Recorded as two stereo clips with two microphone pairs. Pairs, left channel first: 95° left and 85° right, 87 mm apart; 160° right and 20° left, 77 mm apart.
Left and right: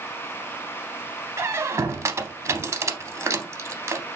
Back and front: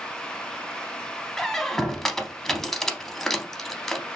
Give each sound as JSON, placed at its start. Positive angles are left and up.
{"t": 1.4, "sound": "a squeak", "azimuth_deg": -75, "distance_m": 0.5}